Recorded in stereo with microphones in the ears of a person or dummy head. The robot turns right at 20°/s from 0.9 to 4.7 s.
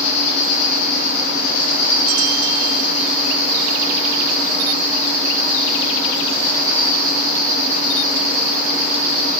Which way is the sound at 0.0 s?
90° left.